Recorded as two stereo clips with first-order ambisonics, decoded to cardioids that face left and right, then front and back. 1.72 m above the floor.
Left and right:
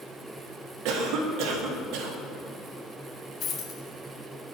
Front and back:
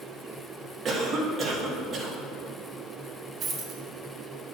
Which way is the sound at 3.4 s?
135° left.